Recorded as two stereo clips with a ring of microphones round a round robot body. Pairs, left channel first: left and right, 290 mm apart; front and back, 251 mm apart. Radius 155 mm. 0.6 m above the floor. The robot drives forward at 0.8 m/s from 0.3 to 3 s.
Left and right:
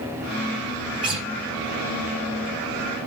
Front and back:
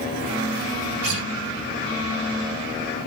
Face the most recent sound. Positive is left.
turn(degrees=-165)